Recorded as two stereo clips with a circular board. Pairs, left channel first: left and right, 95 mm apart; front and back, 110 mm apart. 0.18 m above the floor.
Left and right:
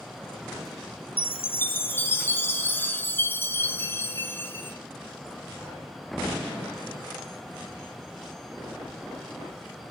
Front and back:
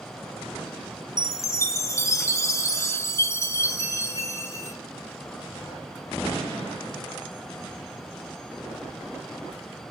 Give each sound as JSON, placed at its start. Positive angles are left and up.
{"t": 1.2, "sound": "a chime", "azimuth_deg": 40, "distance_m": 0.9}